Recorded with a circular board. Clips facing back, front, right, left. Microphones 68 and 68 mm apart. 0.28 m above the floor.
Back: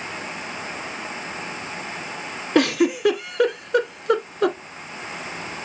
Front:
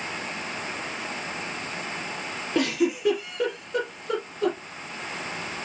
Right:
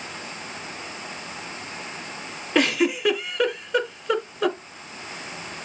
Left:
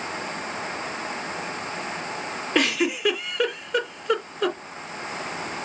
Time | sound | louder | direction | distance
2.5 | a giggle | back 6 dB, right 2 dB | straight behind | 2.0 m